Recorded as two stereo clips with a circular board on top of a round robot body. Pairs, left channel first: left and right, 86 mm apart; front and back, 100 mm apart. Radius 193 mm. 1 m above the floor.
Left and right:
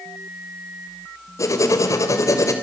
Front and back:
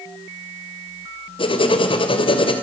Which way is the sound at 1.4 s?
35° left.